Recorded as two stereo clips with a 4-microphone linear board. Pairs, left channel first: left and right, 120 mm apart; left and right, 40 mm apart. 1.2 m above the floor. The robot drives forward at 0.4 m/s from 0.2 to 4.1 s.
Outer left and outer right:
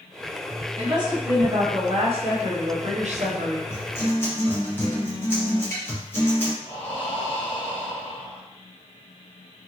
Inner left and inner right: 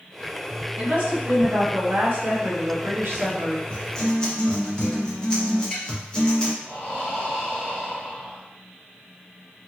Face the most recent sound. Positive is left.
turn(degrees=45)  # may be behind; listen again after turning